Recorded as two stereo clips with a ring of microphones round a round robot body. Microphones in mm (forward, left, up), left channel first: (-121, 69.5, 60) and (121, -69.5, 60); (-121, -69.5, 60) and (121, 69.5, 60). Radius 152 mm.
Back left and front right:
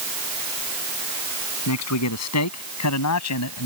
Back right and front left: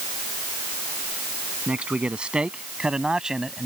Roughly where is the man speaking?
Behind left.